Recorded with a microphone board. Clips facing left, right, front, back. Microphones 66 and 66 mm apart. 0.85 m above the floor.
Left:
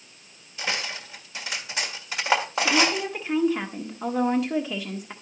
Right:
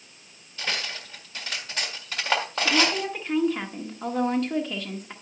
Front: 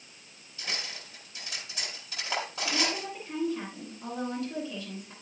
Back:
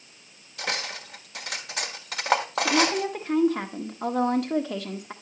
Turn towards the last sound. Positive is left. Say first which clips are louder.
# left 1 dB, back 10 dB
turn(degrees=175)